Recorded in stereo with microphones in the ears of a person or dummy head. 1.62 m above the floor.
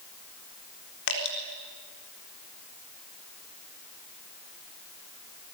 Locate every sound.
1.1 s dripping: 65° left (ahead or behind), 4 m